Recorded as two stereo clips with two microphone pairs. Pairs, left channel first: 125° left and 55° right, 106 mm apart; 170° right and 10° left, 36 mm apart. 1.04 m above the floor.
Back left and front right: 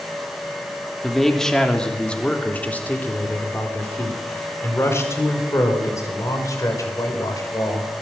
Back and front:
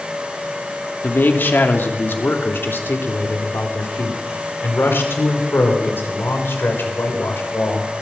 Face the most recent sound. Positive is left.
turn(degrees=180)